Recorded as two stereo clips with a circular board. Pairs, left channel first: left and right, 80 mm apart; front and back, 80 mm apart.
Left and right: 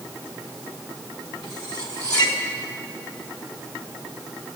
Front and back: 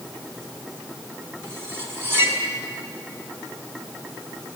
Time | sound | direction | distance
1.4 | cutlery clinking | 120° left | 4.5 m